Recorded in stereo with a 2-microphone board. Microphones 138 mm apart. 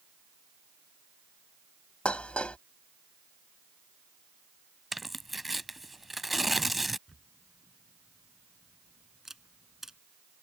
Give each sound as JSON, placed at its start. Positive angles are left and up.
{"t": 2.0, "sound": "dishes clattering", "side_deg": 10}
{"t": 4.9, "sound": "tearing paper", "side_deg": 0}
{"t": 7.1, "sound": "a camera shutter", "side_deg": -5}